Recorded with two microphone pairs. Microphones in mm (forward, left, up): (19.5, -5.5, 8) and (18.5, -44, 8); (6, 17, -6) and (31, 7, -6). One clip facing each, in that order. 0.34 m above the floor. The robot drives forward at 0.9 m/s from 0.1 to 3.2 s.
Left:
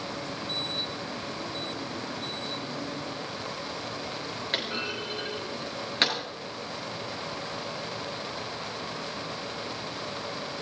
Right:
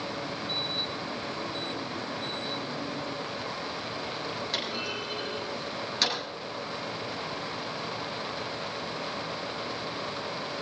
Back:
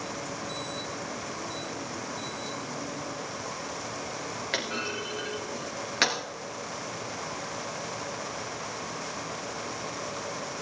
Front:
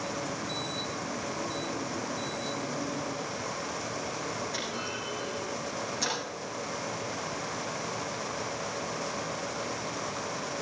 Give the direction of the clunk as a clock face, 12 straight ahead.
7 o'clock.